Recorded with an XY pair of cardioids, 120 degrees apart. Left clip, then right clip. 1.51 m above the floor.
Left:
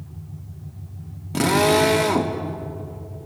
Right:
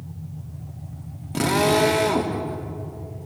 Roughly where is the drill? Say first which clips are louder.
Left 2 dB; ahead.